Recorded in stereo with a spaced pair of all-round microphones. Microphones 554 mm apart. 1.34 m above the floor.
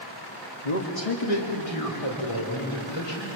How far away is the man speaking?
About 1.6 m.